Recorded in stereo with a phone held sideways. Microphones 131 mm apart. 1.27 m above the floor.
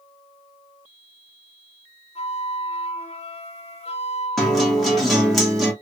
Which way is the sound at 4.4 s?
Centre (ahead or behind).